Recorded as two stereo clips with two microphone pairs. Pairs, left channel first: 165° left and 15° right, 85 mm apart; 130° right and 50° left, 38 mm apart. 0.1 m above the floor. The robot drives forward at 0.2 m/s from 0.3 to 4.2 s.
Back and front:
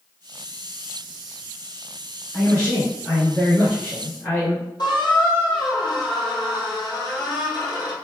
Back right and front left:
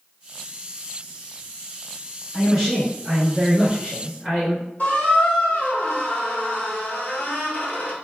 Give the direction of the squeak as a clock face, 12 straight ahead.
6 o'clock.